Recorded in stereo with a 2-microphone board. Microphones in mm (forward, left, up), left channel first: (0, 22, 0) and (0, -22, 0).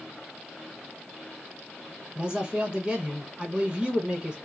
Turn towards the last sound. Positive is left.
turn(degrees=-20)  # may be behind; listen again after turning